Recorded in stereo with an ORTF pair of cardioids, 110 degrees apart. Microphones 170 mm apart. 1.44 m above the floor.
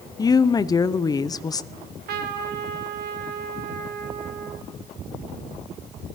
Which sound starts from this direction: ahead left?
A woman speaking, at 0.2 s.